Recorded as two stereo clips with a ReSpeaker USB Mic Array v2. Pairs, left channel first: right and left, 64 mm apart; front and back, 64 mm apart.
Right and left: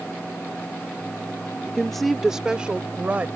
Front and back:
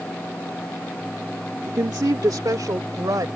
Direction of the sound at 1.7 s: 165° right.